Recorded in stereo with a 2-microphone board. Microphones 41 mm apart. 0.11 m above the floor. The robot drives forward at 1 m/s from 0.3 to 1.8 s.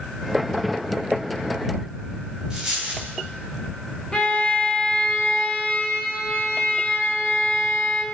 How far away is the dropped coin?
About 9.5 m.